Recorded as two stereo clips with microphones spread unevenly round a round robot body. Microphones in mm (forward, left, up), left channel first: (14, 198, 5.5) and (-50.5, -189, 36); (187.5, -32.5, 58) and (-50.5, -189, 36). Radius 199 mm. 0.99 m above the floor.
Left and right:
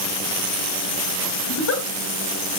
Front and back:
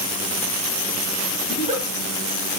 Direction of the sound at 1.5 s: 135° left.